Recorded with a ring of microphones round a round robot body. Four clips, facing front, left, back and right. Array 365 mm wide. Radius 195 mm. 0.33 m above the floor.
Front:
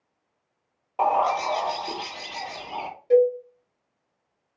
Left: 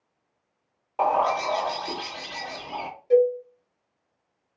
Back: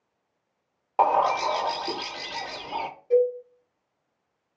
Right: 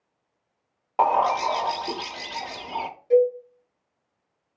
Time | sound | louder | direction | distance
1.0 | a bird | right 2 dB, back 1 dB | 135° right | 0.6 m
3.1 | a cowbell | even, front 3 dB | 5° left | 0.8 m